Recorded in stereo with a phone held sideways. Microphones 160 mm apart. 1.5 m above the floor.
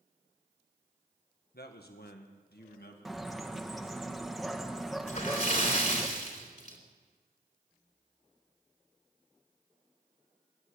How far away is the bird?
About 1.4 m.